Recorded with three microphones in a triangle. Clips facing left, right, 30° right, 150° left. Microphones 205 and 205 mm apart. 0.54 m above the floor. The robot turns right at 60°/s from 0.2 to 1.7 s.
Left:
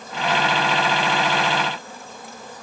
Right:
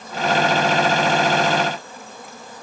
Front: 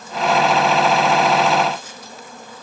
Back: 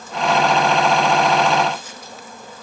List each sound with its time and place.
Only background noise.